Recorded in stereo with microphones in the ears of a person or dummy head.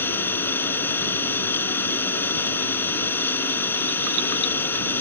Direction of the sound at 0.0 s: 10° left (ahead or behind).